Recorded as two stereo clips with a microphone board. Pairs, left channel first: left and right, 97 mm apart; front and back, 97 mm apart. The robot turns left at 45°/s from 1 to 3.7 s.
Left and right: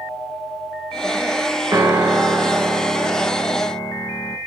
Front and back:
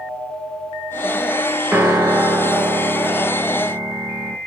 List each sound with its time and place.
1.7 s a piano: 120° right, 1.2 m; by 4.4 s 150° left, 1.2 m